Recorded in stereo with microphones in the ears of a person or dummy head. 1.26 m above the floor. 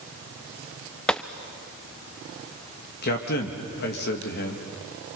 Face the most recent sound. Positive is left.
turn(degrees=50)  # may be behind; listen again after turning